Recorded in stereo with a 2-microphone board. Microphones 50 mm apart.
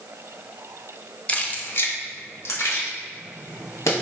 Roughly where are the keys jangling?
Left.